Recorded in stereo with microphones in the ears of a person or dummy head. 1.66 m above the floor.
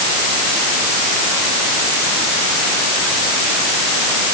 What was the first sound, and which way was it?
Only background noise.